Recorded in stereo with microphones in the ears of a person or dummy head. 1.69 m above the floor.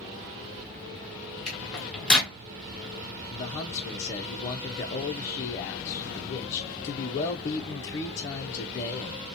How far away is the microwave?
About 1.1 m.